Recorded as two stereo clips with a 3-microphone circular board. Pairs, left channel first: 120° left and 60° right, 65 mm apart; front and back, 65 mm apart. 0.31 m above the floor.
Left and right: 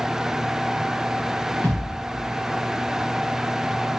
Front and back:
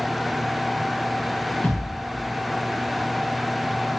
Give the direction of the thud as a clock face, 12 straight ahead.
10 o'clock.